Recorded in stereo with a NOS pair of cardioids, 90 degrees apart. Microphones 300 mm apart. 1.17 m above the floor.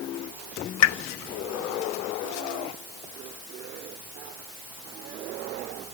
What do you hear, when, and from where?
0.8 s a pop: 55° left, 0.7 m